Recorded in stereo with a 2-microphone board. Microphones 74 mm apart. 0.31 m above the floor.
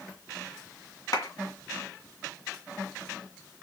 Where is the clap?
60° left (ahead or behind), 2.5 m.